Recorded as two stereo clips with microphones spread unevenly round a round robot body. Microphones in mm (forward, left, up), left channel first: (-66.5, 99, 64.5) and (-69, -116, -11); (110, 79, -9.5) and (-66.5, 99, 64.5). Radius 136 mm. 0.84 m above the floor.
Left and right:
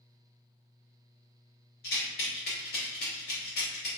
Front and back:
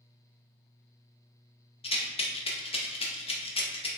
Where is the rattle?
30° left, 0.6 m.